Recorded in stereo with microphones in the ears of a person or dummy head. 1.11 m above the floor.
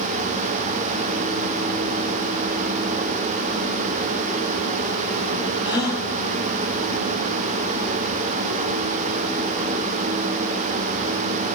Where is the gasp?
10° right (ahead or behind), 1.7 m.